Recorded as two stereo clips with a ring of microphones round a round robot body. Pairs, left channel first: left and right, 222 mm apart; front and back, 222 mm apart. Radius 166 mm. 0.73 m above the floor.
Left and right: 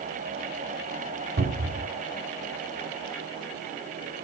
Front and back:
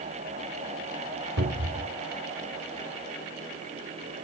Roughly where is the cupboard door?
Behind right.